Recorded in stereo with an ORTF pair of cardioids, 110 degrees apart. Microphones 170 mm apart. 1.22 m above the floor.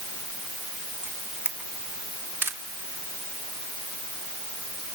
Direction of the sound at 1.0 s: 15° right.